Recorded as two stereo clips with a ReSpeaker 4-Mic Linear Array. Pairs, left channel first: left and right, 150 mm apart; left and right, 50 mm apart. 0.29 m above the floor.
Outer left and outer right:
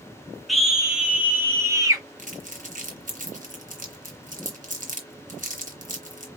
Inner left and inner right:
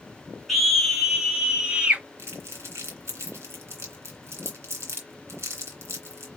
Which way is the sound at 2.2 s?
60° right (ahead or behind).